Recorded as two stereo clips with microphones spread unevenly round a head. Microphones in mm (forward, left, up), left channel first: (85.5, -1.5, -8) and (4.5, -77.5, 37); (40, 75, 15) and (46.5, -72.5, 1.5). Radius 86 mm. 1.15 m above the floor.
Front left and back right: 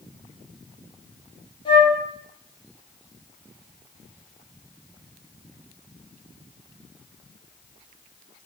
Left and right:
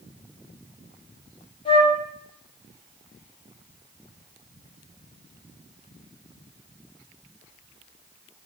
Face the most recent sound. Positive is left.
turn(degrees=35)